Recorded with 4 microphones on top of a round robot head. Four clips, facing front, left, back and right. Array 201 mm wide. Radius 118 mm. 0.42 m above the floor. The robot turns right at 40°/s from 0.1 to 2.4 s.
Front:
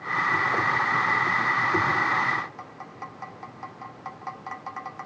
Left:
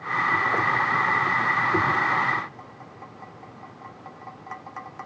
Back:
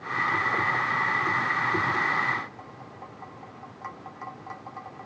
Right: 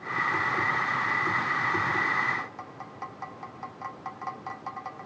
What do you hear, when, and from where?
Only background noise.